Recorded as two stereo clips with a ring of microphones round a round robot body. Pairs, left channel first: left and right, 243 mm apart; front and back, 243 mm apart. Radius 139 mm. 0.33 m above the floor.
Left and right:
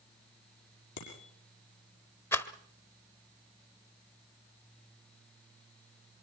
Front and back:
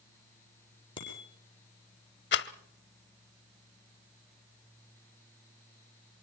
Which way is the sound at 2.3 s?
10° left.